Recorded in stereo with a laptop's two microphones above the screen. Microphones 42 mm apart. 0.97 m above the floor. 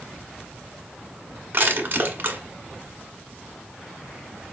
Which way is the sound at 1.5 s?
40° right (ahead or behind).